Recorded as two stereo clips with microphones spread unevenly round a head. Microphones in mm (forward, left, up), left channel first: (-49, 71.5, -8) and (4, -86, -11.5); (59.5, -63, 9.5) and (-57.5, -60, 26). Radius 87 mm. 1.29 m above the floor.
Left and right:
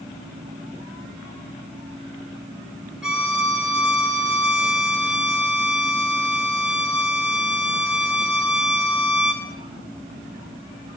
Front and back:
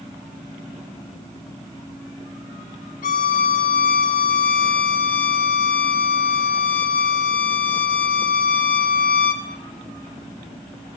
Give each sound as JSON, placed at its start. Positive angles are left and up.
{"t": 3.0, "sound": "a violin", "azimuth_deg": 15, "distance_m": 1.8}